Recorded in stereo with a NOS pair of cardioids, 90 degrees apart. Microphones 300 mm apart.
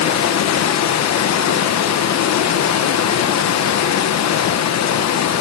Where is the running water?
60° left, 1.0 m.